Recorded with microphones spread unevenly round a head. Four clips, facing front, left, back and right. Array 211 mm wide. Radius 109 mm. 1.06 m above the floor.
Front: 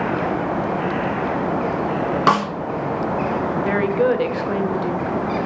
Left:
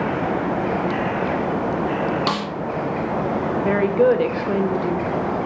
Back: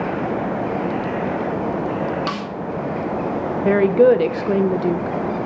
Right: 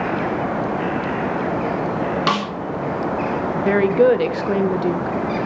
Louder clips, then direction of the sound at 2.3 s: Right 3 dB, front 9 dB; 15° right.